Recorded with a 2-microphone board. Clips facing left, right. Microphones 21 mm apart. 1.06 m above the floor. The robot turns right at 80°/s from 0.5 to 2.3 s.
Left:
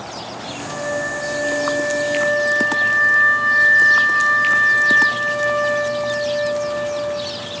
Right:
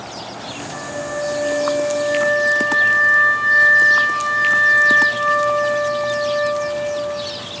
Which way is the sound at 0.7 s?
90° left.